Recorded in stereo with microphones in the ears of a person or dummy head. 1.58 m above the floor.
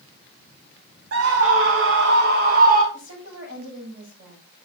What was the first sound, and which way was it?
A scream, 70° right (ahead or behind).